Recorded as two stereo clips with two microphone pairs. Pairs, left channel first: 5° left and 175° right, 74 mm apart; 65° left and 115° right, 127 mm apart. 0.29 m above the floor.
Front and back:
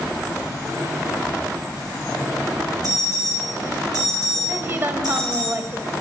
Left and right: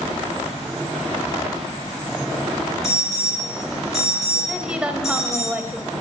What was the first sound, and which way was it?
An alarm, 155° left.